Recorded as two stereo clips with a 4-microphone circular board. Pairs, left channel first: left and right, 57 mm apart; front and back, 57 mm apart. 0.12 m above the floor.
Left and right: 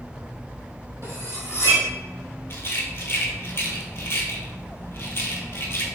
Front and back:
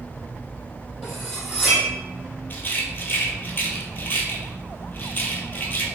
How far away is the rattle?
About 0.6 m.